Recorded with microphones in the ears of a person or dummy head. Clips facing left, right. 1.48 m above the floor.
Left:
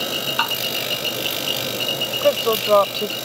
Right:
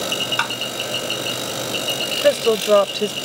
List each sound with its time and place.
0.4 s tapping: 25° right (ahead or behind)
2.2 s a woman speaking: 20° right (ahead or behind)